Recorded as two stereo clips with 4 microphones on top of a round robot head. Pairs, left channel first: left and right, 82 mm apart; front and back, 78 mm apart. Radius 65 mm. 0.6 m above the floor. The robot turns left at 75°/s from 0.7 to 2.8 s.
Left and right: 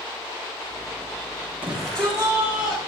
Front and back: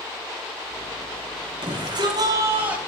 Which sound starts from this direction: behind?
A shout, at 1.6 s.